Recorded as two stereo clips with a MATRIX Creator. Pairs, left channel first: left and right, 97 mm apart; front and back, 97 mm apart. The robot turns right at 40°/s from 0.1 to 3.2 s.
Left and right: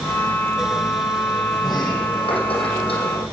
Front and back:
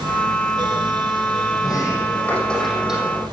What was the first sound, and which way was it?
A sliding door, 45° left.